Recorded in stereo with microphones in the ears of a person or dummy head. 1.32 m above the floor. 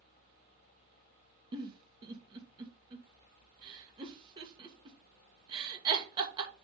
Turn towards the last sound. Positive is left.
turn(degrees=-25)  # may be behind; listen again after turning